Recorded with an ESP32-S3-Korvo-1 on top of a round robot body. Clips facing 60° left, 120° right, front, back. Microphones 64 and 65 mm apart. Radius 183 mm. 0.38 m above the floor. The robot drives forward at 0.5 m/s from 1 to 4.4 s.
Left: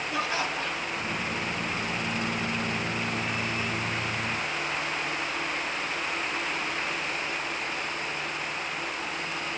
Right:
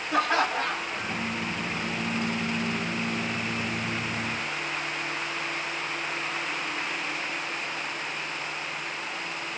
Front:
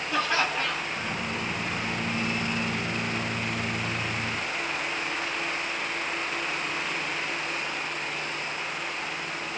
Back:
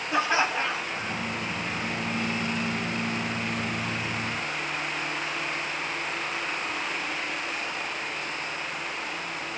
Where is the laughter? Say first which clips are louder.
Right 7 dB, back 2 dB; 110° right, 2 m; by 1.2 s 115° right, 2 m.